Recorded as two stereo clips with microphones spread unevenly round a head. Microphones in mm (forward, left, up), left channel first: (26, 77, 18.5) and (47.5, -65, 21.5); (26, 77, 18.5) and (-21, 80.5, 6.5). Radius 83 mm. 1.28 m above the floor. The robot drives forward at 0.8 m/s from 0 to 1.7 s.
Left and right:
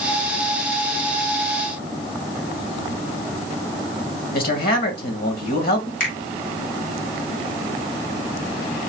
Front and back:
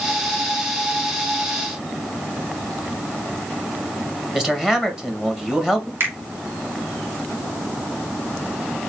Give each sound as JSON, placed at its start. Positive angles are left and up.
{"t": 4.3, "sound": "a man speaking", "azimuth_deg": 100, "distance_m": 1.6}
{"t": 6.0, "sound": "a finger snap", "azimuth_deg": 145, "distance_m": 2.0}